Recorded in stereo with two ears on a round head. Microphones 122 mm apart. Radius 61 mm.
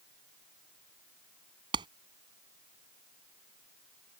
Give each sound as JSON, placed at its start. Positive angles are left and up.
{"t": 1.7, "sound": "a clap", "side_deg": -35}